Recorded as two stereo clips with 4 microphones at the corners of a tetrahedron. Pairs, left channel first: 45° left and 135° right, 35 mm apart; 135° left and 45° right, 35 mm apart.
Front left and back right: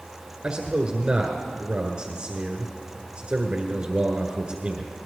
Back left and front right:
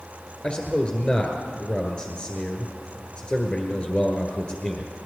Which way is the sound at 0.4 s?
Straight behind.